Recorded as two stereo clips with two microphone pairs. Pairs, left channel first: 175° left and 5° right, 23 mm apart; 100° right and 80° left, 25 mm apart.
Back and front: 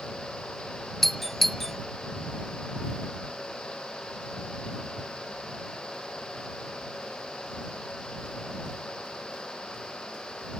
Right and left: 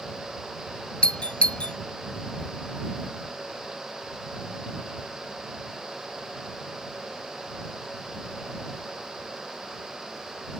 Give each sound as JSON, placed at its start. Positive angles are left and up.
{"t": 1.0, "sound": "a doorbell", "azimuth_deg": -105}